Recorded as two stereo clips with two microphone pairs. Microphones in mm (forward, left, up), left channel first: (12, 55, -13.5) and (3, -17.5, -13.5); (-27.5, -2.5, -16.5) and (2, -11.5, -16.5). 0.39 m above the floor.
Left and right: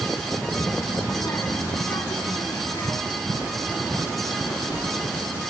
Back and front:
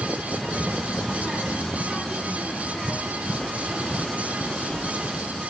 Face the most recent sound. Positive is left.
turn(degrees=105)